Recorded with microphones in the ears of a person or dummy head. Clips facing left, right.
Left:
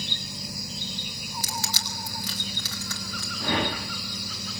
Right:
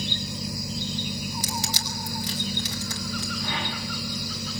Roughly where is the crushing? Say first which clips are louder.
Right 4 dB; centre.